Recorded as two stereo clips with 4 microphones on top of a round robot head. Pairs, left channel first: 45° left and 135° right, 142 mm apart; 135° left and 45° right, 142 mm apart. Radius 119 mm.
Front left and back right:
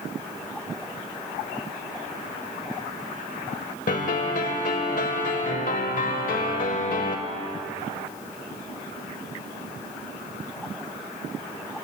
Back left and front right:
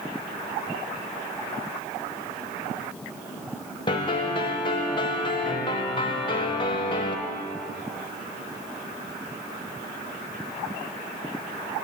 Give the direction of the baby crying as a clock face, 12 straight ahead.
I don't hear a baby crying.